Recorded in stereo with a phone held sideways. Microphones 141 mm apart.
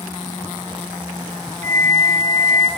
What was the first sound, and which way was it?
A flute, 75° right (ahead or behind).